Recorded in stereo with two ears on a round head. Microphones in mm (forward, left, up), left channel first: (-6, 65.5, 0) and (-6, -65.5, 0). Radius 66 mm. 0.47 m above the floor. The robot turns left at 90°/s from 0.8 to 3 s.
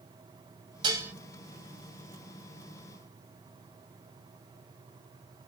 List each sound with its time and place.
0.8 s dishes clattering: 30° right (ahead or behind), 1.8 m; by 1.1 s 5° right (ahead or behind), 1.8 m